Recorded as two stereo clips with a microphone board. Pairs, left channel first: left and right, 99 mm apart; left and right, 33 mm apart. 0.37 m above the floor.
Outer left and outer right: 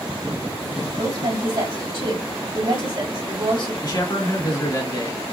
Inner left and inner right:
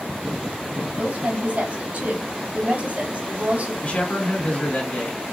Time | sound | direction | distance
1.0 | a woman speaking | 60° right (ahead or behind) | 2.5 m
3.8 | a man speaking | 45° left (ahead or behind) | 2 m